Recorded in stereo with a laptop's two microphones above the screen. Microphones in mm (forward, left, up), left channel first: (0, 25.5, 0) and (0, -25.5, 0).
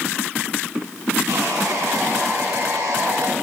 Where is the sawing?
60° right (ahead or behind), 7.5 m.